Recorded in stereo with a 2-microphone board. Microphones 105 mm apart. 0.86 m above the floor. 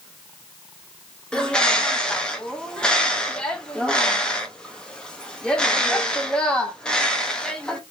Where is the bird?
10° left (ahead or behind), 0.8 m.